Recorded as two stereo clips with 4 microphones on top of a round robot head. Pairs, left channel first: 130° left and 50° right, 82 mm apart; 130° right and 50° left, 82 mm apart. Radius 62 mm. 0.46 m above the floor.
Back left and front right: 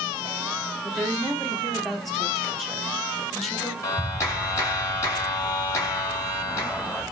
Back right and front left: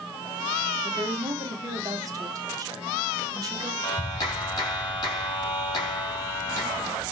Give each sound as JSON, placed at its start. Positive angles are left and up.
{"t": 0.8, "sound": "a woman speaking", "azimuth_deg": 45, "distance_m": 1.6}
{"t": 3.8, "sound": "a clap", "azimuth_deg": -170, "distance_m": 3.0}